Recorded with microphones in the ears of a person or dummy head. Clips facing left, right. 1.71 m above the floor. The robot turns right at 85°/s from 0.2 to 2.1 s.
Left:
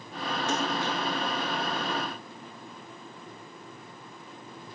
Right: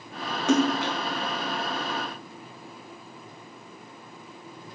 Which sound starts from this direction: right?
A splash, at 0.5 s.